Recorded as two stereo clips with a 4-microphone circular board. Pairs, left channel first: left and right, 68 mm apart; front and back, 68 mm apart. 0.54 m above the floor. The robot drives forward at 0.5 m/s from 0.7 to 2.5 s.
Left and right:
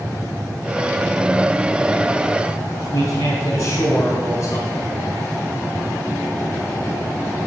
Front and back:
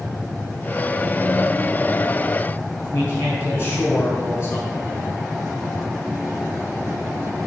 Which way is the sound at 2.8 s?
65° left.